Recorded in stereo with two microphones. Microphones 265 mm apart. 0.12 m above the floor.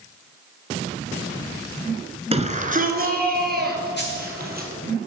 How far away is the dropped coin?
About 2.5 m.